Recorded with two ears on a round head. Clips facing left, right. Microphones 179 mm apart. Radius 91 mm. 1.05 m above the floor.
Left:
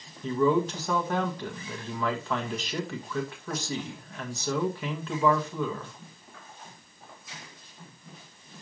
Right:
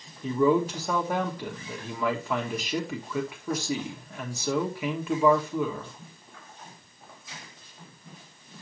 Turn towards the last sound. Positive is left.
turn(degrees=-10)  # may be behind; listen again after turning